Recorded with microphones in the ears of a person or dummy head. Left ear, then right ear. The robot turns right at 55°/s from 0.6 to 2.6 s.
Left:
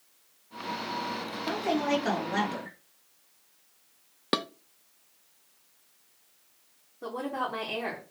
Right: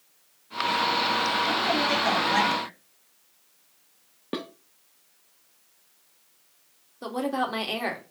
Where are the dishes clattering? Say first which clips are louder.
Left 5 dB; 60° left (ahead or behind), 0.6 m.